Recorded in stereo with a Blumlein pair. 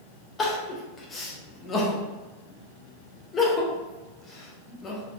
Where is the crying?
20° left, 1.0 m.